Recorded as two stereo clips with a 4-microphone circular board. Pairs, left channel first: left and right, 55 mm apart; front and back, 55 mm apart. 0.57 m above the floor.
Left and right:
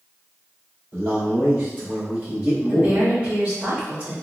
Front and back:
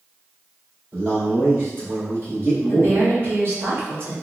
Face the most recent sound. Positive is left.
turn(degrees=-145)